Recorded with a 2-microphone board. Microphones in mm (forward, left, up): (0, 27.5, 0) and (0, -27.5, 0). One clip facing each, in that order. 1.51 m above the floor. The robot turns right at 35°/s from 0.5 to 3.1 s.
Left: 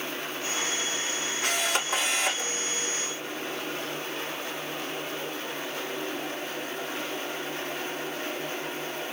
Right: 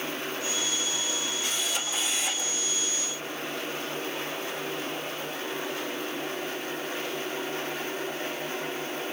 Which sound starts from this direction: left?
A camera shutter, at 1.4 s.